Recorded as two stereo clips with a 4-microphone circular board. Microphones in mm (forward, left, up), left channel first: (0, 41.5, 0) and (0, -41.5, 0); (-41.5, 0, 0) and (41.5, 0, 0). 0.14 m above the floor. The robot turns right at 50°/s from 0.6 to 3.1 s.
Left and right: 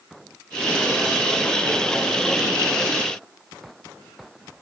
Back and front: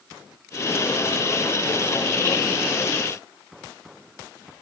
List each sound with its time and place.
Only background noise.